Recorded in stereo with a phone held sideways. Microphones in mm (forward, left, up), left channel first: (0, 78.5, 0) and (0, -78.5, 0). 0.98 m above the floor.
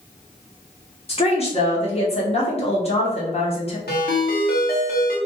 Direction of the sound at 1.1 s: 40° left (ahead or behind).